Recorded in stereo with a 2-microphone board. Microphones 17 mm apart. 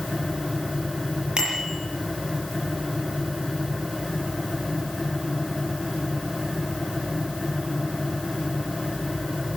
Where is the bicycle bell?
65° right (ahead or behind), 7 m.